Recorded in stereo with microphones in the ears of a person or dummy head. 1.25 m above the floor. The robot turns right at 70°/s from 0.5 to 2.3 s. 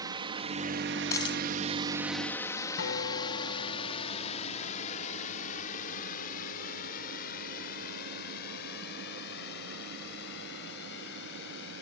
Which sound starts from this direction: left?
A guitar, at 2.8 s.